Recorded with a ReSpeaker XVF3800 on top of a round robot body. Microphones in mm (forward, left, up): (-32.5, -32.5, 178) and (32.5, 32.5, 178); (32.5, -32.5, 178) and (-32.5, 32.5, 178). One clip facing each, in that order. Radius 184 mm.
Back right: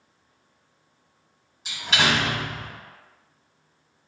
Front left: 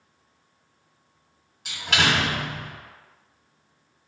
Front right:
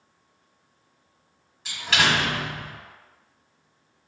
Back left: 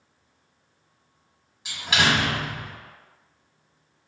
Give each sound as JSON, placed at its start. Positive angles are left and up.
{"t": 1.6, "sound": "a door slam", "azimuth_deg": 60, "distance_m": 1.6}